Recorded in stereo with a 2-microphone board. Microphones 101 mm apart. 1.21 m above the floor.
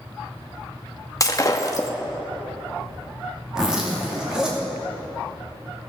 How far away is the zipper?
About 2.5 m.